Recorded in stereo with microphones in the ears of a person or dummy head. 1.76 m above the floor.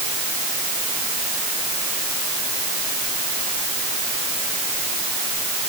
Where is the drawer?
I don't hear a drawer.